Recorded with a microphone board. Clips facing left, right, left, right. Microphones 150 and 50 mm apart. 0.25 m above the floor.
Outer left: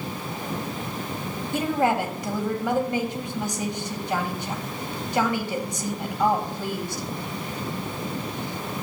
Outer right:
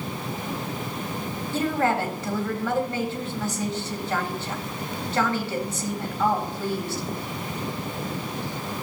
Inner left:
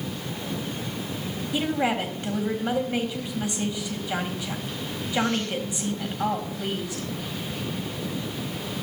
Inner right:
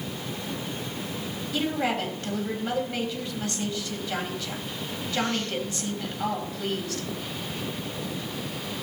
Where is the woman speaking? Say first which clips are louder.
Outer left 1 dB, inner left 2 dB; 15° left (ahead or behind), 1.6 m.